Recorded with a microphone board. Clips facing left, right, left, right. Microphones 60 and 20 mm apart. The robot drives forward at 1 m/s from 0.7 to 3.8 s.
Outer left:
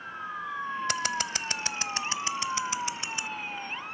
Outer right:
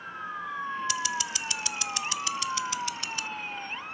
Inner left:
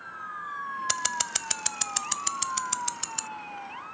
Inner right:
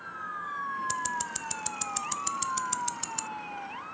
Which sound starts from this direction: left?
Scissors, at 0.9 s.